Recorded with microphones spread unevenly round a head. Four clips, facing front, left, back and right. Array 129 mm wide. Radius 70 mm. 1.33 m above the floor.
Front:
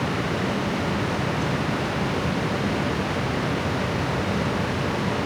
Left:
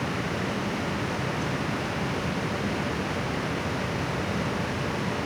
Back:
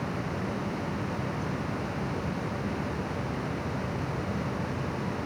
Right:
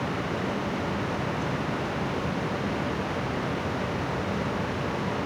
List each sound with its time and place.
Only background noise.